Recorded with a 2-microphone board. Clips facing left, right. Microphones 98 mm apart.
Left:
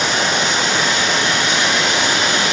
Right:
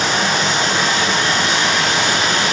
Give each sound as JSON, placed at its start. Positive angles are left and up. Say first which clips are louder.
{"t": 0.0, "sound": "running water", "louder": "right 1 dB", "side_deg": -45, "distance_m": 3.0}